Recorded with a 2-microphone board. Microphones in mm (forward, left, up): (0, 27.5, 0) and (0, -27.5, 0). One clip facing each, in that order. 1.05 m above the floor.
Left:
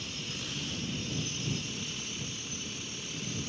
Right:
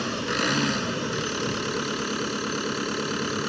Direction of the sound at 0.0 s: 75° right (ahead or behind).